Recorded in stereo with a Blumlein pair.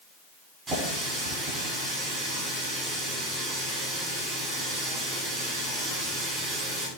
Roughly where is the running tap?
Ahead.